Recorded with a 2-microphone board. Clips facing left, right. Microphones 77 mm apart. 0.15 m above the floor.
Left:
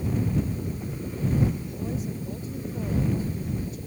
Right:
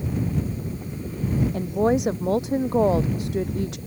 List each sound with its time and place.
1.5 s a woman speaking: 75° right (ahead or behind); by 3.8 s 80° right